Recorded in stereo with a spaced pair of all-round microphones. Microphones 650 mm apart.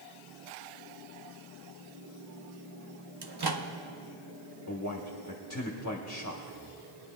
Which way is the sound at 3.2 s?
40° right (ahead or behind).